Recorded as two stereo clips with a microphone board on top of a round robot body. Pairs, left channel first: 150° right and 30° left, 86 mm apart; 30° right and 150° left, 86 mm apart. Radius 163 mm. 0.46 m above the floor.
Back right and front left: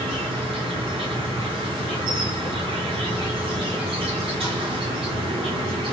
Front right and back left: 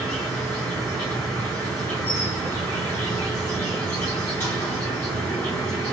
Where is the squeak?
I don't hear a squeak.